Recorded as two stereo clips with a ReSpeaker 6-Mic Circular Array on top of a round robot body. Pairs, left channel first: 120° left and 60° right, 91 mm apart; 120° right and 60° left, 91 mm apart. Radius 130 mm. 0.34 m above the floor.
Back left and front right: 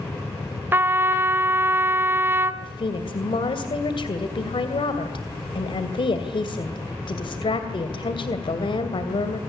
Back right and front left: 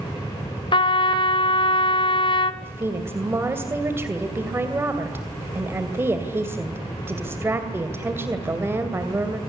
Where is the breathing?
I don't hear breathing.